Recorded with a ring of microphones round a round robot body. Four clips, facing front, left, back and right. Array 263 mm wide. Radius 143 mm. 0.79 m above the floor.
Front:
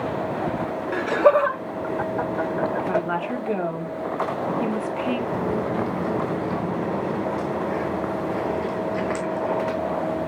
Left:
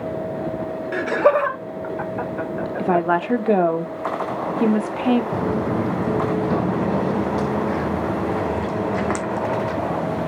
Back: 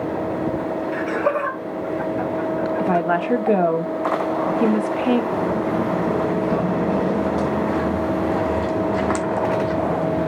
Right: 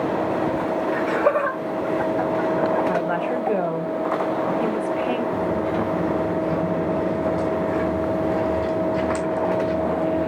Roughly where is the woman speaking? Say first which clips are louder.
Left 2 dB, back 5 dB; behind left.